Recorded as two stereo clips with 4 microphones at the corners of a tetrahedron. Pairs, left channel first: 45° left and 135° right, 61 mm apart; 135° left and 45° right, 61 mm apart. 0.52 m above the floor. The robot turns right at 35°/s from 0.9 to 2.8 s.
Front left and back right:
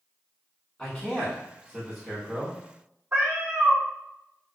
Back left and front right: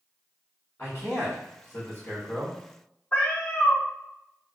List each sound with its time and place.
0.8 s a man speaking: 105° left, 1.5 m; by 2.6 s 165° left, 1.5 m
3.1 s a cat meowing: 170° right, 0.8 m